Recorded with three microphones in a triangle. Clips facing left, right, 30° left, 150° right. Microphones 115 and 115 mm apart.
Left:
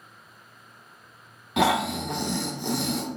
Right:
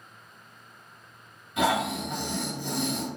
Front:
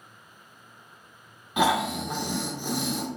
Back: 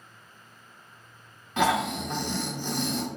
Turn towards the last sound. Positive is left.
turn(degrees=110)